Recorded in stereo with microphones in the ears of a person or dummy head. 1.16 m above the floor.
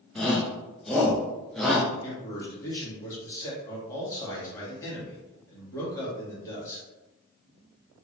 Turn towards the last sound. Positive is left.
turn(degrees=20)  # may be behind; listen again after turning